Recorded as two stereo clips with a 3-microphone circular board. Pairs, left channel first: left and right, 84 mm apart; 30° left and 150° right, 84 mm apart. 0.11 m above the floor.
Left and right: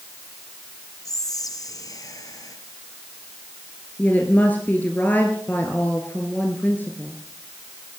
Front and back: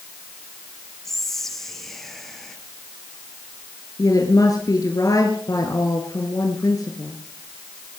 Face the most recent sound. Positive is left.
turn(degrees=30)